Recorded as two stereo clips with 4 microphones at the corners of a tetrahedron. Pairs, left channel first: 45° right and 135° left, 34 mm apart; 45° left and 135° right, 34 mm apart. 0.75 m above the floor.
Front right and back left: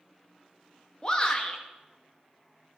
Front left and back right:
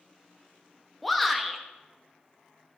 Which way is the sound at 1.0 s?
40° right.